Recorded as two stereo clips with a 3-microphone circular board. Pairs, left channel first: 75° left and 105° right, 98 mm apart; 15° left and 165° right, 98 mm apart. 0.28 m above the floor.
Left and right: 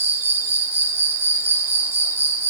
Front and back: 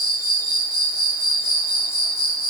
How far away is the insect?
About 3 m.